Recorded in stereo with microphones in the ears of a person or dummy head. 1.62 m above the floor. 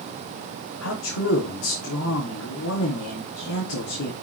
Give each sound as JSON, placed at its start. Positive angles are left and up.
{"t": 0.8, "sound": "a man speaking", "side_deg": 80, "distance_m": 3.5}